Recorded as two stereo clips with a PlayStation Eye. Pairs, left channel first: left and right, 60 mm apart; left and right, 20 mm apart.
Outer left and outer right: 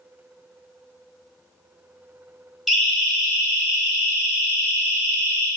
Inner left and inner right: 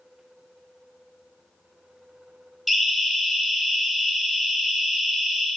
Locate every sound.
2.7 s a siren: 5° right (ahead or behind), 5 m; by 5.5 s 25° right (ahead or behind), 8 m